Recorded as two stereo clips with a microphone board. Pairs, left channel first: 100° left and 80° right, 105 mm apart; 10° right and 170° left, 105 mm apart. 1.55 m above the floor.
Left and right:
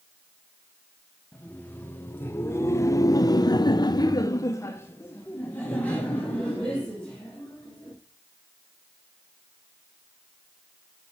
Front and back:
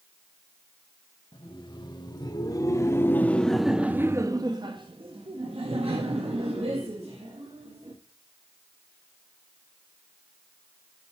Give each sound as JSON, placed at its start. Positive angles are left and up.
{"t": 1.3, "sound": "laughter", "azimuth_deg": 25, "distance_m": 1.4}